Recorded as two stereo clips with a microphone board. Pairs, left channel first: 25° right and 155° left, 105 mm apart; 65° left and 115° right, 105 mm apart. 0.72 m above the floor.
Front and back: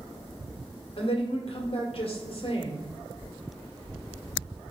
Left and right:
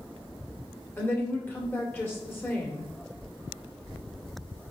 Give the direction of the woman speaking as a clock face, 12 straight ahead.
12 o'clock.